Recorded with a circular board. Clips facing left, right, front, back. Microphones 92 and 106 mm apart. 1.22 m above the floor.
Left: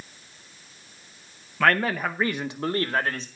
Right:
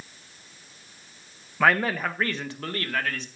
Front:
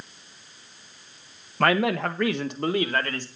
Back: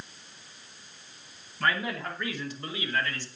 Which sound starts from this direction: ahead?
A man speaking, at 1.6 s.